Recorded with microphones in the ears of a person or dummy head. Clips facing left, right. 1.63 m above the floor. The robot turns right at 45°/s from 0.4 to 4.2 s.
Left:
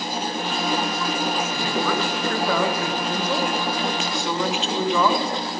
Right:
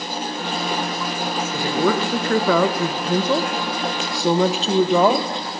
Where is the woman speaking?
160° right, 0.8 m; by 5.6 s 40° right, 0.8 m.